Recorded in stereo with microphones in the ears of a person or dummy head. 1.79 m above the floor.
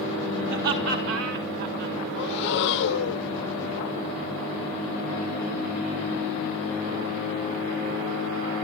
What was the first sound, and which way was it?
Laughter, 60° right (ahead or behind).